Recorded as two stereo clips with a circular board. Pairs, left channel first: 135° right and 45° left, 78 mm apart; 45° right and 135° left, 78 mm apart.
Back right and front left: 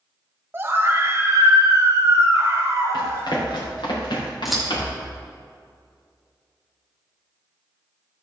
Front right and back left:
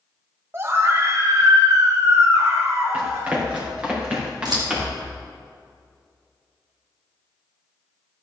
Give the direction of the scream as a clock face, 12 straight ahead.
9 o'clock.